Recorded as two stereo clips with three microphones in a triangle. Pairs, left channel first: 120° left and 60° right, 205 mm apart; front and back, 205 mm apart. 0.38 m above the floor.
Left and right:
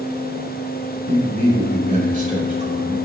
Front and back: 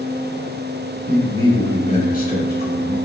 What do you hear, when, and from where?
1.1 s a man speaking: 80° right, 0.9 m; by 3.0 s 10° right, 1.5 m